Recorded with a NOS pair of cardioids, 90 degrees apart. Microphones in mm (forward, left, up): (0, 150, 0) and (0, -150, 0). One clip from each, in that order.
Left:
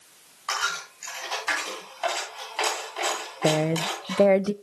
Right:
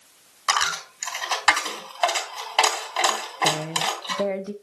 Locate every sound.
0.5 s a dropped coin: 70° right, 3 m
3.4 s a woman speaking: 35° left, 0.5 m